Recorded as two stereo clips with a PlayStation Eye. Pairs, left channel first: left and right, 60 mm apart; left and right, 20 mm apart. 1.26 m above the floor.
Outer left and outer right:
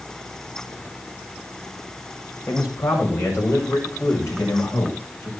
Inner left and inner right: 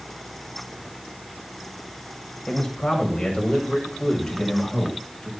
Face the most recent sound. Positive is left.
turn(degrees=50)  # may be behind; listen again after turning